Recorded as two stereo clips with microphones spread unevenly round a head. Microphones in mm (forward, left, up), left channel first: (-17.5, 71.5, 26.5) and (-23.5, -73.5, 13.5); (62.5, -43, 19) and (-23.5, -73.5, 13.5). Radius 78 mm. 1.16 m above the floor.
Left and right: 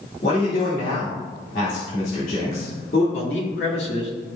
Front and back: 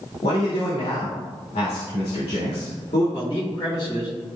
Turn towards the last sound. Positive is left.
turn(degrees=85)